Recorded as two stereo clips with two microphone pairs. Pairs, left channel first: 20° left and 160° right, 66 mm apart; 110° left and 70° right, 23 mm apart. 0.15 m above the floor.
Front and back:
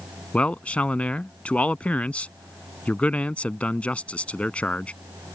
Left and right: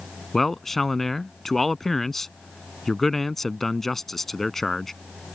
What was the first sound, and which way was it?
A man speaking, 45° left.